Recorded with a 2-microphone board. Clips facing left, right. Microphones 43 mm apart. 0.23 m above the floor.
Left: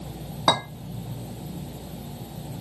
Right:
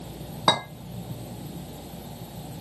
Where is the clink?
10° right (ahead or behind), 1.4 m.